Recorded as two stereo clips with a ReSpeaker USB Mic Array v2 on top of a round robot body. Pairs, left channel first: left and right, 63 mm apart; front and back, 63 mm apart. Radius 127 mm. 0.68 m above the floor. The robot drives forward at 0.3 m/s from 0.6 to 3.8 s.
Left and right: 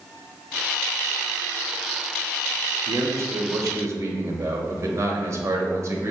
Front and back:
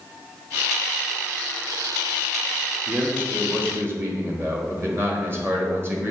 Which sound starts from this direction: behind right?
A man speaking, at 2.9 s.